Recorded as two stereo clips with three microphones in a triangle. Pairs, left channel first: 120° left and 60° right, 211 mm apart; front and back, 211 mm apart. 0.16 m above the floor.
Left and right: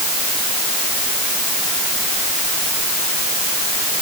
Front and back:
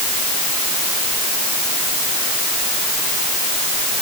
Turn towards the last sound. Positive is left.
No sound to turn to.